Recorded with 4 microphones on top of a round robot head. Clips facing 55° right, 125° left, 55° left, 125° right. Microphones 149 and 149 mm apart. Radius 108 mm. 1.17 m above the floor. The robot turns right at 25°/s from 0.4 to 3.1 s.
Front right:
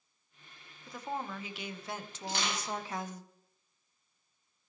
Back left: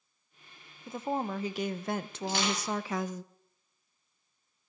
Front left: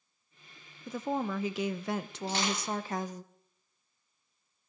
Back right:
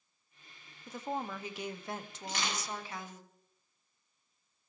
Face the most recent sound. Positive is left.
turn(degrees=135)